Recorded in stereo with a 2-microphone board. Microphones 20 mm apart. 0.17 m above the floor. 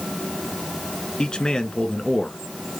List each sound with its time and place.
1.2 s a man speaking: 50° left (ahead or behind), 1.7 m